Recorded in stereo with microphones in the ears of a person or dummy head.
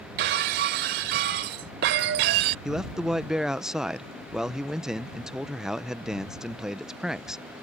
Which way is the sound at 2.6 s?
5° right (ahead or behind).